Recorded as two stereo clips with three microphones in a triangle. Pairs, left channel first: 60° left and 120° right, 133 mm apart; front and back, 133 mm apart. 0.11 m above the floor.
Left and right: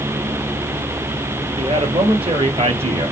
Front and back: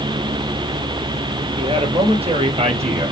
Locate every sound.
1.6 s a man speaking: 150° right, 2 m; by 3.1 s 155° right, 3 m